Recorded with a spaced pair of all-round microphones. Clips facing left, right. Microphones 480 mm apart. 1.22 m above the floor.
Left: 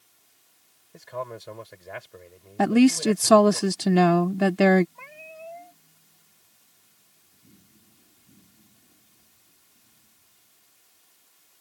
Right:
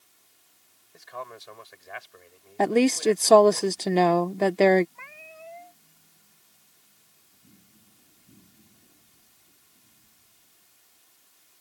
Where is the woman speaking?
30° left (ahead or behind).